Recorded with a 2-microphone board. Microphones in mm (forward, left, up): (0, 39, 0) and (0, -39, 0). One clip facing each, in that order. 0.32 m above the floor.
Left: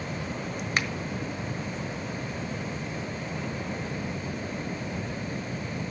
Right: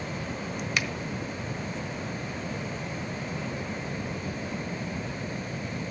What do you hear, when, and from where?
0.8 s a finger snap: 40° left (ahead or behind), 1.4 m